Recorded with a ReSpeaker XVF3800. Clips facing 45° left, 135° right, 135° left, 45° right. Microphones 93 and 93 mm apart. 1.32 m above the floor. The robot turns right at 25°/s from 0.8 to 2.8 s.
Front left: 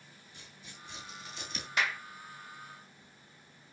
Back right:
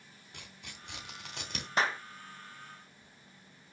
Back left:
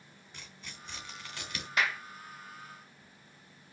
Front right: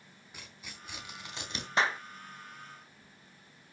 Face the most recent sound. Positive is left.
turn(degrees=-70)